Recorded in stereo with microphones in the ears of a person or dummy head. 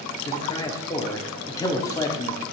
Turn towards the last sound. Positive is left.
turn(degrees=20)  # may be behind; listen again after turning